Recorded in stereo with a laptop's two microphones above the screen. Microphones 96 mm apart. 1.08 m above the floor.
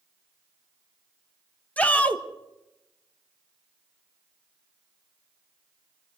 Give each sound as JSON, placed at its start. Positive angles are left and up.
{"t": 1.8, "sound": "a shout", "side_deg": 15, "distance_m": 1.4}